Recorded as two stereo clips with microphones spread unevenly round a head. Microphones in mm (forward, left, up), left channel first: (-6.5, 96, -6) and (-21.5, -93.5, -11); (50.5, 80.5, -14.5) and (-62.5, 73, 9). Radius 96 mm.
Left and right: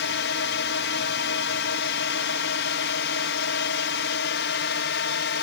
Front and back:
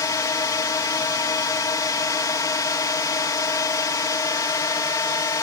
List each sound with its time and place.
0.0 s a drone: 60° left